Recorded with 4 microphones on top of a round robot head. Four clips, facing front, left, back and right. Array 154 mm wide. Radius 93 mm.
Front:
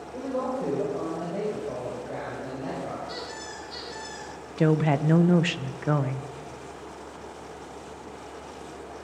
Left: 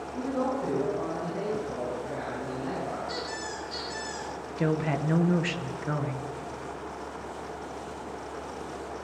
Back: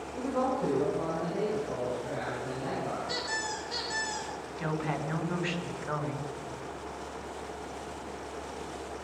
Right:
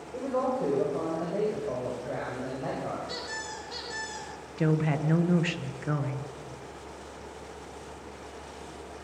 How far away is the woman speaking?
About 0.8 m.